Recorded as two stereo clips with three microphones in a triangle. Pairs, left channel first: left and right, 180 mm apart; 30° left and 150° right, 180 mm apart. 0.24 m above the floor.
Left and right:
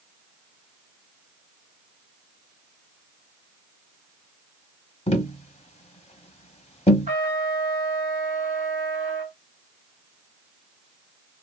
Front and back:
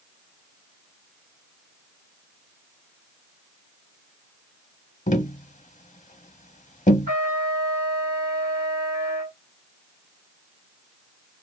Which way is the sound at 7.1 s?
135° right.